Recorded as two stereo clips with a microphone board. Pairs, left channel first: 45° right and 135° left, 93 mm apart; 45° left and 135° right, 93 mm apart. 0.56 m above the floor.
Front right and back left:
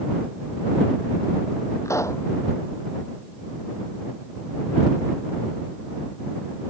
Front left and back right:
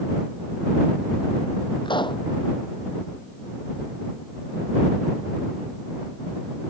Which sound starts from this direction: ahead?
A pop, at 1.9 s.